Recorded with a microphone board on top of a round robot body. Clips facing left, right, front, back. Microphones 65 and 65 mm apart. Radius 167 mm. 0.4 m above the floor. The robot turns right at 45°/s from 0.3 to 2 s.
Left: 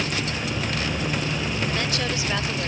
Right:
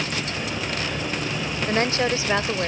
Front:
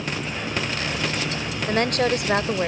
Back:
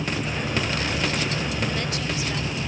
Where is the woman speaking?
45° right; by 2.7 s 30° right.